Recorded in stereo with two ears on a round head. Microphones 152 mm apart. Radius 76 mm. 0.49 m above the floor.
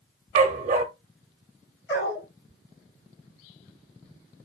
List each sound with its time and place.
0.3 s a dog barking: 45° right (ahead or behind), 0.9 m
1.9 s a dog barking: 70° left (ahead or behind), 4.5 m